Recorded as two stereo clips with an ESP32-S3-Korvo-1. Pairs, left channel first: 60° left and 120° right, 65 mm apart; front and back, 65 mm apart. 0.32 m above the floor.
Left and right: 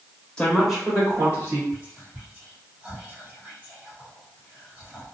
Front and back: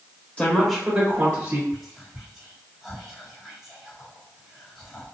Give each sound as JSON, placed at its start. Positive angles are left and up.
{"t": 0.4, "sound": "a woman speaking", "azimuth_deg": 15, "distance_m": 1.1}
{"t": 1.7, "sound": "whispering", "azimuth_deg": -100, "distance_m": 1.7}